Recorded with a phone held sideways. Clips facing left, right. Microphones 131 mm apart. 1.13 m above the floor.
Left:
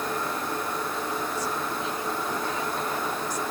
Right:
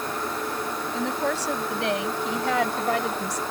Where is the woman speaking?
85° right.